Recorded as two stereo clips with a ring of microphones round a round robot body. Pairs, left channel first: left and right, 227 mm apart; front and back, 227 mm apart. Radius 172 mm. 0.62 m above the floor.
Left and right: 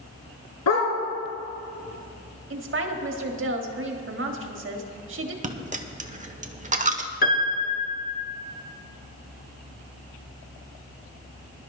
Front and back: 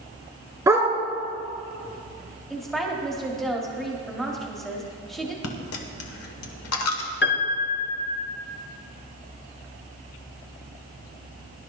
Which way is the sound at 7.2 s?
40° left.